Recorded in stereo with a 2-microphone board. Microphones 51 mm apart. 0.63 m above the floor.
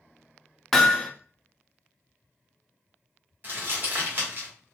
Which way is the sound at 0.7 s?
5° left (ahead or behind).